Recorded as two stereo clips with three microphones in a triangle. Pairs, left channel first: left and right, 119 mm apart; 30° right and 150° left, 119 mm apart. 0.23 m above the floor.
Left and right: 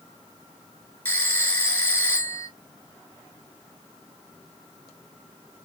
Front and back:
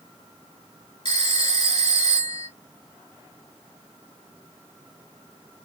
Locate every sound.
1.1 s a phone ringing: 15° left, 2.5 m